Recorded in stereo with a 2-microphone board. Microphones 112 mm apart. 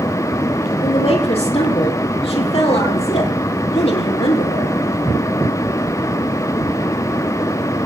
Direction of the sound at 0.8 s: 65° left (ahead or behind).